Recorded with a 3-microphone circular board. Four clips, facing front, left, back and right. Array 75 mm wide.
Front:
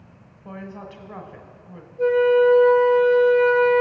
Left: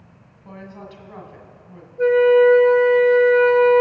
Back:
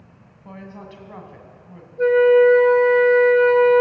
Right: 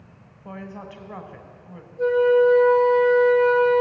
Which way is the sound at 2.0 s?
140° left.